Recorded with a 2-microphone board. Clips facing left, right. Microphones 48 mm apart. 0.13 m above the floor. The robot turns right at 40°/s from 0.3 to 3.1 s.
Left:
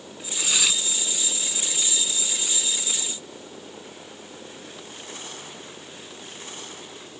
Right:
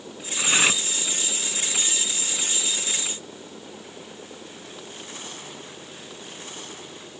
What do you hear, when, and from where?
0.4 s cutlery clinking: 30° right (ahead or behind); by 0.8 s 45° right (ahead or behind)